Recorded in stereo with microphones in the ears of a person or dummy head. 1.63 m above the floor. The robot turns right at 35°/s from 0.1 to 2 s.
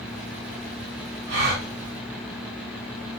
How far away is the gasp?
About 3 m.